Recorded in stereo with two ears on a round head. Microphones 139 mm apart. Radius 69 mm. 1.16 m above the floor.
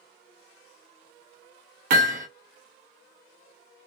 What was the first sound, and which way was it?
Hammering, 50° right (ahead or behind).